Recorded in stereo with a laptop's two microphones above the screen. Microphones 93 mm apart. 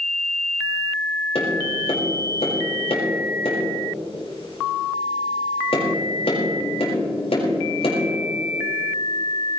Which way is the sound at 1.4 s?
80° left.